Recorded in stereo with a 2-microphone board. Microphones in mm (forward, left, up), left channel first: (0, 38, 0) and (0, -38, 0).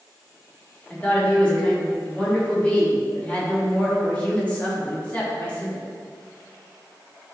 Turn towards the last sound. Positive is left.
turn(degrees=20)  # may be behind; listen again after turning